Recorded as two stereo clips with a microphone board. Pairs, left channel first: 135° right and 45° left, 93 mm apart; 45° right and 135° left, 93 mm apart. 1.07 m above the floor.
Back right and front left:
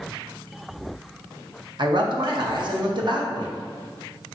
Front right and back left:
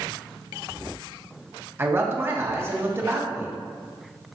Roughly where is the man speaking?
Left.